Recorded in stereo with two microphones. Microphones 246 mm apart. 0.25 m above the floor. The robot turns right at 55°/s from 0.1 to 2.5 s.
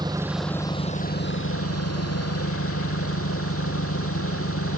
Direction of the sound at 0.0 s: 15° right.